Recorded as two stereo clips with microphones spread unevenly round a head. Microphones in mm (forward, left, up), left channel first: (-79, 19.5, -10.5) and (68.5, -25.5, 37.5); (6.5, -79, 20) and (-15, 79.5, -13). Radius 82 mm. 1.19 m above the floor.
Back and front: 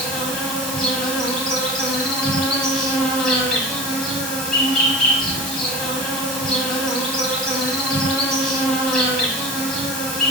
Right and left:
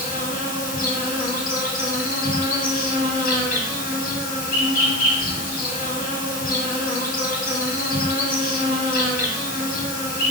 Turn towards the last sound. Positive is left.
turn(degrees=-120)